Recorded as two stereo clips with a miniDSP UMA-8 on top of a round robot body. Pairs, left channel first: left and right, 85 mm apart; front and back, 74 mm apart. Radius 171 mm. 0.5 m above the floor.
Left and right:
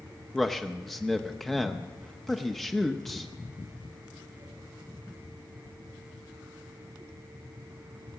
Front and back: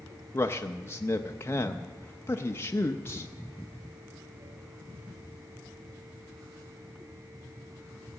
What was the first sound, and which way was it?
A man speaking, 5° left.